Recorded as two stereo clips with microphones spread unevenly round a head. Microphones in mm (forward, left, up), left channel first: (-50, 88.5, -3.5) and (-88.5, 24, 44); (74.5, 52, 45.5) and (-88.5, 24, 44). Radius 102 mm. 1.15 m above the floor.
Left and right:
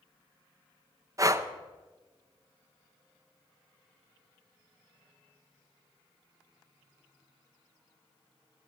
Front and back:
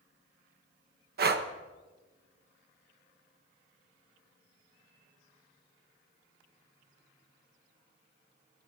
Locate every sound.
1.2 s breathing: straight behind, 1.3 m